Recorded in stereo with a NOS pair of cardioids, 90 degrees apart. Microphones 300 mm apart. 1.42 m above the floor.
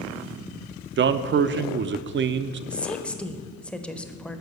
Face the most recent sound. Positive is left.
turn(degrees=5)